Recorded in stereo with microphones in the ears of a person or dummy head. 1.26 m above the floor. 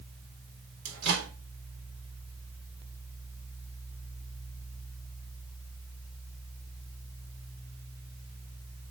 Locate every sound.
0.8 s a microwave: 75° right (ahead or behind), 4 m